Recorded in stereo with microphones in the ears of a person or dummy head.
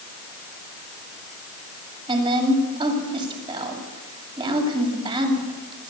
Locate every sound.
2.1 s a woman speaking: 25° right (ahead or behind), 7.5 m